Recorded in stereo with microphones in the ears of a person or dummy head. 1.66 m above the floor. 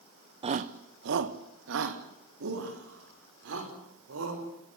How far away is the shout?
About 0.6 m.